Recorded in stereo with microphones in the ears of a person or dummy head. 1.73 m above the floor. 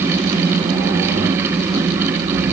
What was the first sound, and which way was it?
Only background noise.